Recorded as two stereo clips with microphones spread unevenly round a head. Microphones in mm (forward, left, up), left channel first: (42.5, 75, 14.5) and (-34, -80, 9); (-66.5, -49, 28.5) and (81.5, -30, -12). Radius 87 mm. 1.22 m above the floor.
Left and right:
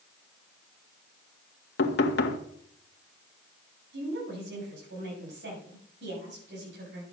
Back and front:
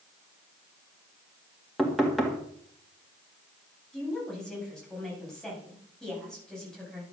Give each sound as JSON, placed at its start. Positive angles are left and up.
{"t": 1.8, "sound": "knocking", "azimuth_deg": 100, "distance_m": 1.6}
{"t": 3.9, "sound": "a woman speaking", "azimuth_deg": -85, "distance_m": 7.0}